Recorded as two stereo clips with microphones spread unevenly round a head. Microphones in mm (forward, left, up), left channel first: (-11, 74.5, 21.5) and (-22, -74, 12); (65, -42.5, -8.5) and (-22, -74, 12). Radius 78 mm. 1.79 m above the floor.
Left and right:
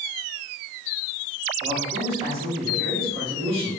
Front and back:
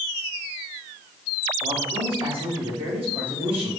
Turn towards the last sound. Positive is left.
turn(degrees=-145)